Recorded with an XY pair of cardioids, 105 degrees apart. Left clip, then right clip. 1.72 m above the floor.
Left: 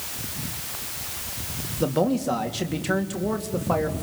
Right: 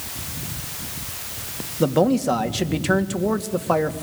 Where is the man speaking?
25° right, 2.5 m.